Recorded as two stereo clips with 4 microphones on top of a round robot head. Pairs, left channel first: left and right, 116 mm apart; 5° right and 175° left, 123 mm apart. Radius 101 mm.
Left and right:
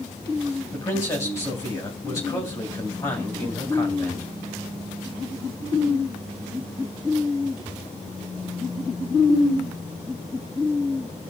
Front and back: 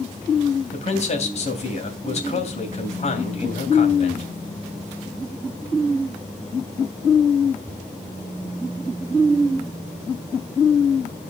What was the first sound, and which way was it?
A man speaking, 20° left.